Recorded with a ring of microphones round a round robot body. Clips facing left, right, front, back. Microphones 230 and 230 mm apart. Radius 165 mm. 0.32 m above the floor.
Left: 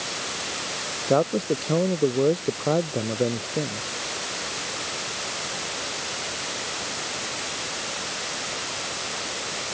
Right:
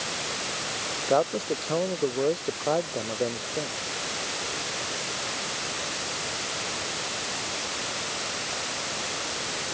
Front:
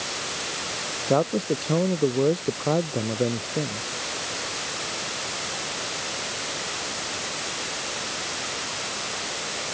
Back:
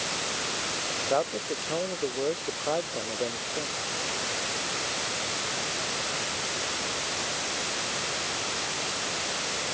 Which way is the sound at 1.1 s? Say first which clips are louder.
Left 3 dB, front 7 dB; 35° left.